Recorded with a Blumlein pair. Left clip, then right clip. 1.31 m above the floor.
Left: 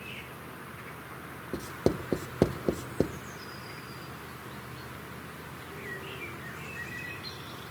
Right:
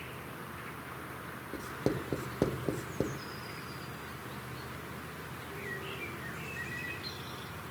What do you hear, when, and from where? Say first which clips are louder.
1.5 s writing: left 5 dB; 15° left, 0.8 m